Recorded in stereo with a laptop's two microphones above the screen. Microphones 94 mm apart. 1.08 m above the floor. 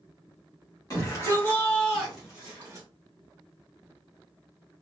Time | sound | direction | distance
0.9 | a shout | 35° left (ahead or behind) | 1.4 m